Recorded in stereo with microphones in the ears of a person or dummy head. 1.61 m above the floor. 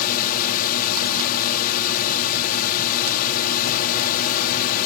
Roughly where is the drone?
Left.